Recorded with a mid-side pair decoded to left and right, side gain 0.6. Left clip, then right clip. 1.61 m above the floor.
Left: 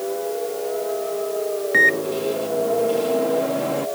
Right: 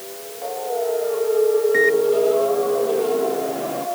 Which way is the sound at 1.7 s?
30° left.